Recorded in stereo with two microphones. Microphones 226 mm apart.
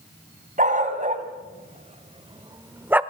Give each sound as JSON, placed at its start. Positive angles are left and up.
{"t": 0.6, "sound": "a dog barking", "side_deg": -35, "distance_m": 3.0}